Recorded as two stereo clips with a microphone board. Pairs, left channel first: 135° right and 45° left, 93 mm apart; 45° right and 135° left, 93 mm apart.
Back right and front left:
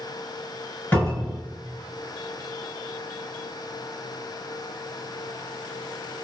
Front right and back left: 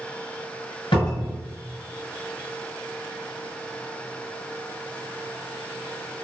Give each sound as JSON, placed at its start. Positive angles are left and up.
{"t": 0.9, "sound": "a cupboard door", "azimuth_deg": -60, "distance_m": 1.7}